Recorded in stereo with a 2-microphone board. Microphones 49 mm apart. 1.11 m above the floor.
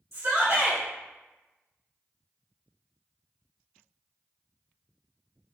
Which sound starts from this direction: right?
A shout, at 0.1 s.